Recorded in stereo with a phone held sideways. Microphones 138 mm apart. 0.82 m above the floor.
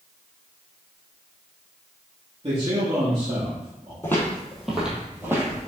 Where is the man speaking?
40° right (ahead or behind), 1.3 m.